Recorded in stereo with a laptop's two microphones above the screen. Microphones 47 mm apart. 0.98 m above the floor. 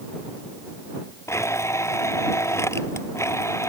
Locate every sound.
1.3 s a blender: 80° left